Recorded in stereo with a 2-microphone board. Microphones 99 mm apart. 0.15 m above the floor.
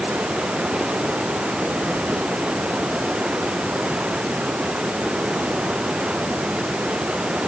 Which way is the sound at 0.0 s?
10° right (ahead or behind).